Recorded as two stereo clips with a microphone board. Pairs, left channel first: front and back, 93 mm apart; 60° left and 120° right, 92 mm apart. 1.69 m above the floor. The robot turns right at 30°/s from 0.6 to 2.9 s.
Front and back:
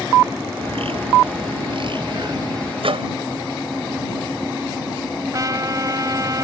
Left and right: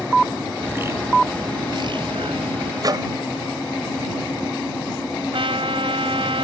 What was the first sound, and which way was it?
A bird, 170° left.